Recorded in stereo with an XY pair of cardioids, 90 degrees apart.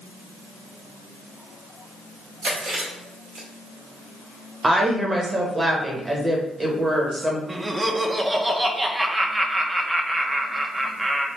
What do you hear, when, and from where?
2.4 s chewing: 70° right, 1.9 m
4.6 s a woman speaking: 25° right, 1.1 m
7.5 s laughter: 20° right, 0.7 m